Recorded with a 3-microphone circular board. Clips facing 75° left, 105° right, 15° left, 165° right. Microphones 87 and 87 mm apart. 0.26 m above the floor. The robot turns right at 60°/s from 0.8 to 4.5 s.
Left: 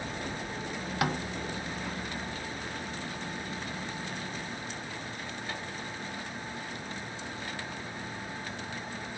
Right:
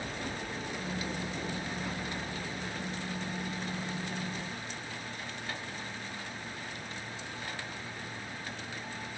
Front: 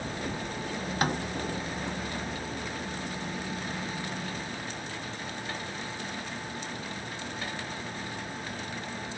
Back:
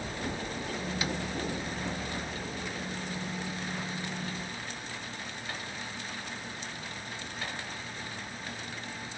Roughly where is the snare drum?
Ahead left.